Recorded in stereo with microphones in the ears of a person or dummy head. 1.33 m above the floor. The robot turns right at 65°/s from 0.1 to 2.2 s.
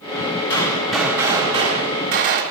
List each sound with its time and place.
0.5 s a gunshot: 155° left, 1.5 m; by 2.4 s 95° right, 1.5 m